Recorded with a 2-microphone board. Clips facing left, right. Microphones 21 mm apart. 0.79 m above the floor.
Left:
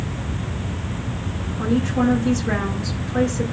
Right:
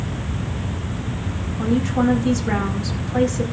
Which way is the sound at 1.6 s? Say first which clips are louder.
Even; 20° right (ahead or behind).